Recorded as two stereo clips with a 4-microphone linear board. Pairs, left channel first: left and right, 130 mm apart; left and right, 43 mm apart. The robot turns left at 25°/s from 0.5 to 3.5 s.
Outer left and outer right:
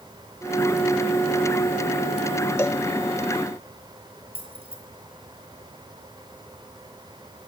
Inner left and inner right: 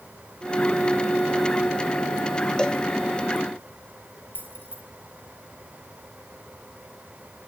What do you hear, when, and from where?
2.6 s a cowbell: 20° left (ahead or behind), 1.2 m; by 2.8 s 25° left (ahead or behind), 1.2 m
4.3 s keys jangling: 45° right (ahead or behind), 6.5 m